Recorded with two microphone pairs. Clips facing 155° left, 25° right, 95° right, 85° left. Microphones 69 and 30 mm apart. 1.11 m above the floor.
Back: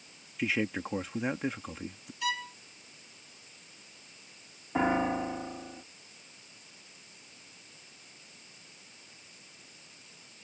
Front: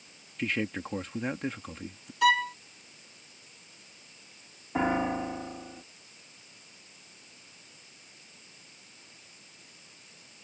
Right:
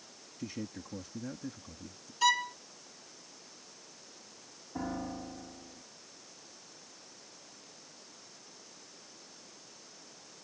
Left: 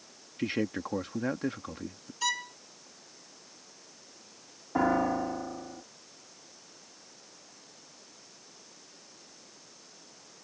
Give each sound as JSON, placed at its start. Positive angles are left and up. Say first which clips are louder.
{"t": 0.4, "sound": "a man speaking", "louder": "back 1 dB, left 10 dB", "azimuth_deg": 70}
{"t": 2.2, "sound": "a violin", "louder": "front 11 dB, right 4 dB", "azimuth_deg": -20}
{"t": 4.8, "sound": "a piano", "louder": "even, left 12 dB", "azimuth_deg": 65}